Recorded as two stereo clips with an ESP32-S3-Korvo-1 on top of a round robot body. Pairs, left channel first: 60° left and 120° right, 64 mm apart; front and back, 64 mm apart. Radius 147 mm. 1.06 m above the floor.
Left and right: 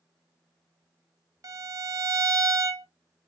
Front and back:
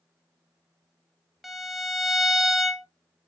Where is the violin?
90° right, 0.9 m.